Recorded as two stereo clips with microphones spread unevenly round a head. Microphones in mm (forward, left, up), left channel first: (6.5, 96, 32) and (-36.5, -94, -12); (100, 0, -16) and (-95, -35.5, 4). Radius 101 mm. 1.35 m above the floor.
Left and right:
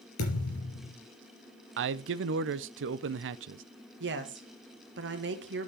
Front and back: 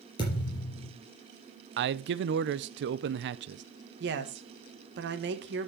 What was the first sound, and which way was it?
A thud, 80° left.